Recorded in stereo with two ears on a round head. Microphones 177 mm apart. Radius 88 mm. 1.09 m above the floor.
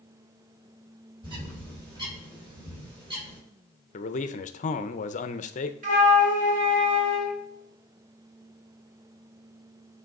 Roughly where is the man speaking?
Left.